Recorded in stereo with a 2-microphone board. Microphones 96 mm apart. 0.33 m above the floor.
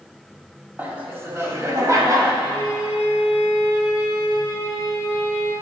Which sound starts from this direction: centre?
Laughter, at 0.8 s.